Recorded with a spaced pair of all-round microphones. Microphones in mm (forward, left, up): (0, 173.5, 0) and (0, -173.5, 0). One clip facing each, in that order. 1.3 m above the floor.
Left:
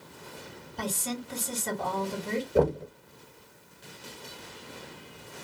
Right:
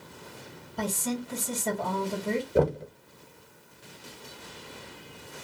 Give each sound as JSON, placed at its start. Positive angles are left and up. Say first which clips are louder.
{"t": 0.8, "sound": "a woman speaking", "louder": "right 3 dB", "side_deg": -70, "distance_m": 1.9}
{"t": 2.5, "sound": "knocking", "louder": "left 1 dB", "side_deg": 0, "distance_m": 0.6}